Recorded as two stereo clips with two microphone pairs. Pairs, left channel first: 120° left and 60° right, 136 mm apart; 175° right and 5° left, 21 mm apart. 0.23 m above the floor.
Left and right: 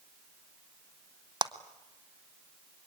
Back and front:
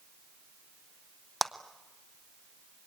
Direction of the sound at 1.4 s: 90° right.